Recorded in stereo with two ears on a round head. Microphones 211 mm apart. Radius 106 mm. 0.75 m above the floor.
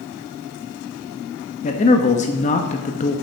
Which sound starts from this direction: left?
A man speaking, at 1.6 s.